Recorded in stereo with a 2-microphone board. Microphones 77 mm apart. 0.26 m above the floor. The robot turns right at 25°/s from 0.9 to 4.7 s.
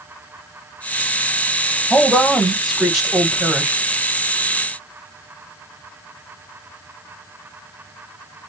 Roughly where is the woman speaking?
Centre.